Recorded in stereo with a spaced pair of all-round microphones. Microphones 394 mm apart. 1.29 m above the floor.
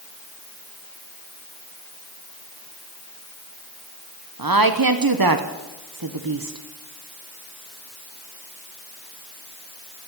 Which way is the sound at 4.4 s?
60° right (ahead or behind).